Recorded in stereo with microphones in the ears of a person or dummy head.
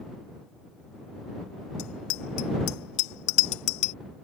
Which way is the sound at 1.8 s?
85° left.